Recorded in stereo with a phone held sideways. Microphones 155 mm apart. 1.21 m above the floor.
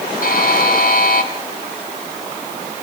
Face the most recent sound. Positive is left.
turn(degrees=65)  # may be behind; listen again after turning